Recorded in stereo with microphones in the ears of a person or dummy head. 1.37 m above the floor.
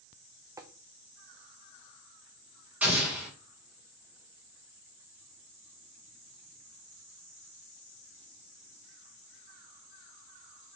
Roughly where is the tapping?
Centre.